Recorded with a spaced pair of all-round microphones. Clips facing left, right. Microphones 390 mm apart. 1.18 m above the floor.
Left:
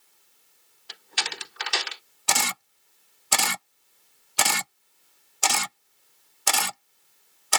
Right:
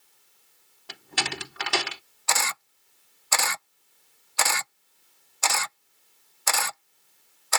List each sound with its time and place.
0.9 s a door slam: 70° right (ahead or behind)
2.3 s a camera shutter: 50° left (ahead or behind)